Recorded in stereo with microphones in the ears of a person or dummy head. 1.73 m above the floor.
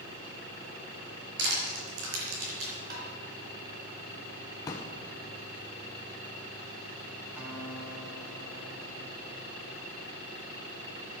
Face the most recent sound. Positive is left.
turn(degrees=-10)  # may be behind; listen again after turning